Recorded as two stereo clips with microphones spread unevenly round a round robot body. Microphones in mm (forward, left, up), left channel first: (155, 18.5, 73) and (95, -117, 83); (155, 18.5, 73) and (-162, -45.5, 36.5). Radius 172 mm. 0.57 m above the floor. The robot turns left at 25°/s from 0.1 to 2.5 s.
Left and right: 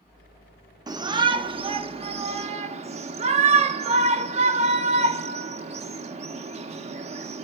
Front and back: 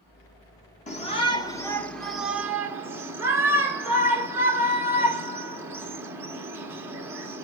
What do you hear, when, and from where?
0.9 s a shout: 55° right, 1.1 m; by 7.5 s 95° right, 1.1 m